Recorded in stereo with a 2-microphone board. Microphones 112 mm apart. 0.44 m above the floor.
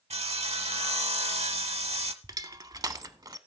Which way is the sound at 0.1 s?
70° right (ahead or behind).